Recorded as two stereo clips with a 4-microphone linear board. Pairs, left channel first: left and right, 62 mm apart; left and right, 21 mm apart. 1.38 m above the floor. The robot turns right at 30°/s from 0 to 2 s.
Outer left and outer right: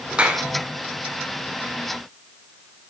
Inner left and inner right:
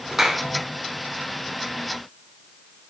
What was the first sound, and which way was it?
A clap, 15° right (ahead or behind).